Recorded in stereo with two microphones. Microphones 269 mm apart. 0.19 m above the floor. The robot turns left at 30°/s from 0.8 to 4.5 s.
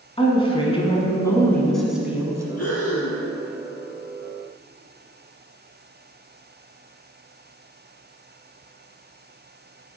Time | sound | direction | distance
0.2 | a woman speaking | 30° left | 1.4 m
2.6 | breathing | 70° left (ahead or behind) | 1.3 m